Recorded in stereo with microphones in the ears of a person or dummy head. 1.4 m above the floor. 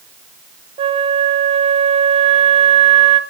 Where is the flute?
35° right (ahead or behind), 0.7 m.